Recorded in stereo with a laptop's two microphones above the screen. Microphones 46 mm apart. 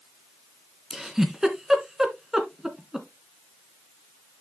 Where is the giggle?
10° right (ahead or behind), 2.5 m.